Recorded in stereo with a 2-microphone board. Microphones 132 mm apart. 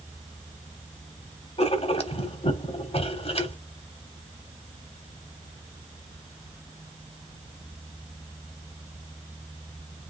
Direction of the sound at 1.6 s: 50° left (ahead or behind).